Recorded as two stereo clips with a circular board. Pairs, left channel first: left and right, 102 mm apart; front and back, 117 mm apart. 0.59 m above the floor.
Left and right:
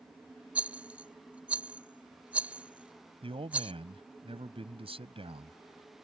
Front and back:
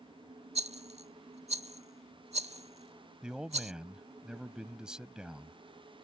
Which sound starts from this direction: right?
A man speaking, at 3.2 s.